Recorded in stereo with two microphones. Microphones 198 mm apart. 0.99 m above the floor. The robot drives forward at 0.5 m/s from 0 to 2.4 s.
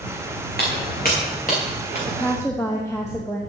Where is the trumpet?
No trumpet in this recording.